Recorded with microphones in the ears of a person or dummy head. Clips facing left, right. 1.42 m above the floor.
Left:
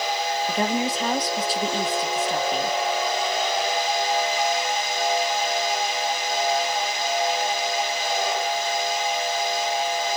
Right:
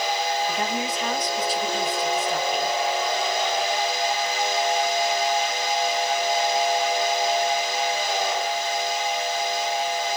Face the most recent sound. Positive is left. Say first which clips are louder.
# left 3 dB
turn(degrees=40)  # may be behind; listen again after turning